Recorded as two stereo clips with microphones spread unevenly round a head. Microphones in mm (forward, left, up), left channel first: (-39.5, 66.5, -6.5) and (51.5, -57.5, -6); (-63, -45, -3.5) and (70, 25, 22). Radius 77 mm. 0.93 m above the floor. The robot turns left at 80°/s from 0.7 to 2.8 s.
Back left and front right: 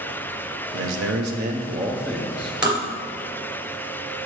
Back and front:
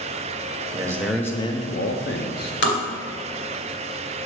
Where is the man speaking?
35° right, 0.9 m; by 2.5 s straight behind, 0.9 m.